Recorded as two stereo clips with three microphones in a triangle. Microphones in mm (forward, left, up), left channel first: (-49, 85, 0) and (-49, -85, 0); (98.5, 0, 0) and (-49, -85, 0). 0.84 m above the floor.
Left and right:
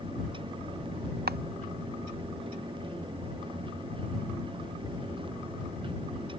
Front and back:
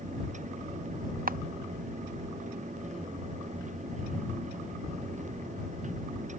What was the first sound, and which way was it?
A camera shutter, 115° right.